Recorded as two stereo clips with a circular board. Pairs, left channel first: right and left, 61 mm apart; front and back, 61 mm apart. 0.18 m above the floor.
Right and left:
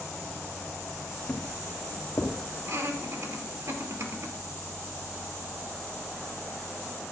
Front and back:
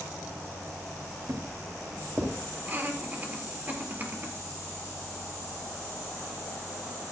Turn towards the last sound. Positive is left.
turn(degrees=125)